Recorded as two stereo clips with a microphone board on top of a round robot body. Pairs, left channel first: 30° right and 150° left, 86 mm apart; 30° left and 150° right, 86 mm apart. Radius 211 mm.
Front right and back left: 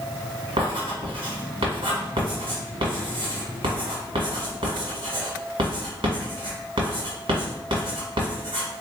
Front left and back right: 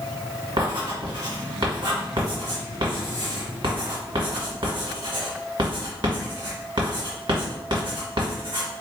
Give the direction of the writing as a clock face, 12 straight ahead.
6 o'clock.